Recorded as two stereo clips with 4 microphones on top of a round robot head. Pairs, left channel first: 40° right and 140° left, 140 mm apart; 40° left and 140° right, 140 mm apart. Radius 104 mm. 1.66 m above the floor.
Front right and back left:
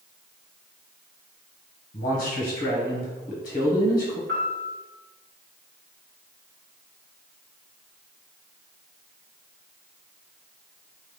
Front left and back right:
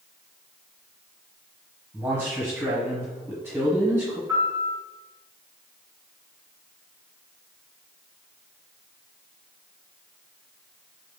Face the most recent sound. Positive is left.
turn(degrees=150)